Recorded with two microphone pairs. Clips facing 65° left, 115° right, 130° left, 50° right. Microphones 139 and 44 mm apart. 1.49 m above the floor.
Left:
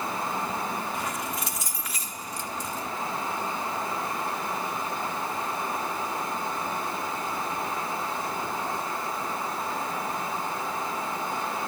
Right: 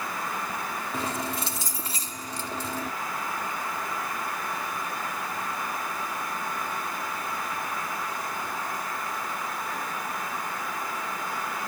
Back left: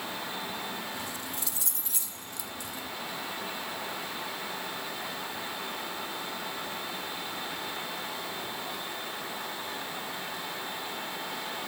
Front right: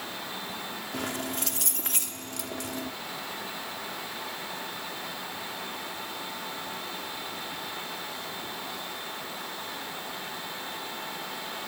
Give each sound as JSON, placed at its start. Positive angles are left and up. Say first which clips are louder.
{"t": 0.9, "sound": "keys jangling", "louder": "right 1 dB, front right 5 dB", "azimuth_deg": -55}